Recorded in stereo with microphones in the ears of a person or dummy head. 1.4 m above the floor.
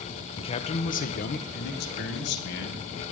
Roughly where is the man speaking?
Left.